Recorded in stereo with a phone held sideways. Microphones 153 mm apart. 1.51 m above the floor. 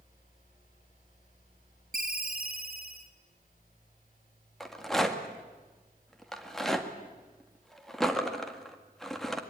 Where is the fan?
60° left (ahead or behind), 8 m.